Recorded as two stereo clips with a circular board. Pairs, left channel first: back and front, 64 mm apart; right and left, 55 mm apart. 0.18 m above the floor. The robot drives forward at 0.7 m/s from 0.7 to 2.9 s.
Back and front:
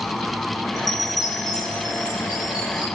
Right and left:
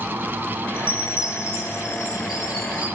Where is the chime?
160° left, 0.5 m; by 2.9 s 175° left, 2.0 m.